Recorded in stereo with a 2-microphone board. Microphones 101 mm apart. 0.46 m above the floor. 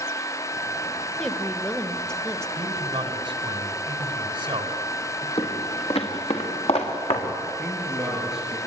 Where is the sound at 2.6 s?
50° right (ahead or behind), 3.5 m.